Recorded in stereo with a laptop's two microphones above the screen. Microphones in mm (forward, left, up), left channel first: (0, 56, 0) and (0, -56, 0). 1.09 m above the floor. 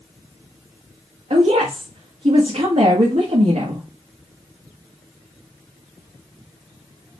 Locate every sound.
1.3 s a woman speaking: 85° right, 0.9 m